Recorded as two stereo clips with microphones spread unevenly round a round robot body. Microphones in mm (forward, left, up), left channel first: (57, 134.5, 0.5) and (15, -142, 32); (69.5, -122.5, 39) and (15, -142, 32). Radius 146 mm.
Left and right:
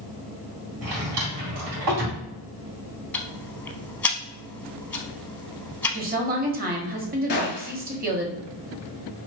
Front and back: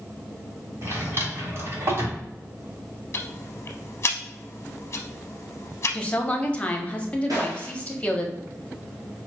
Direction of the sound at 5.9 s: 50° right.